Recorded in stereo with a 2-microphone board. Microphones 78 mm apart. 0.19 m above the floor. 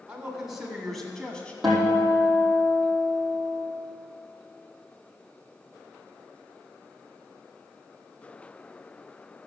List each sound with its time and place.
0.1 s a man speaking: 15° right (ahead or behind), 1.6 m; by 1.5 s 15° left (ahead or behind), 1.6 m
1.6 s a guitar: centre (ahead or behind), 4.5 m